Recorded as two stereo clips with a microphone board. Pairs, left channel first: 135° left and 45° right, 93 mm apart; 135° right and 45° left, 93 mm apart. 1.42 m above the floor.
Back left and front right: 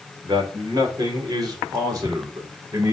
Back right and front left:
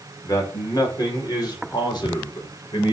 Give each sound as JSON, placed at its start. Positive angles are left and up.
{"t": 0.2, "sound": "a man speaking", "azimuth_deg": -85, "distance_m": 5.0}